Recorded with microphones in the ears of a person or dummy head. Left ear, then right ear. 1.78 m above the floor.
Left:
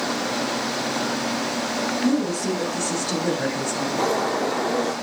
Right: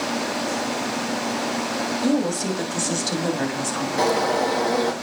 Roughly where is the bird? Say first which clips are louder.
Right 3 dB; right.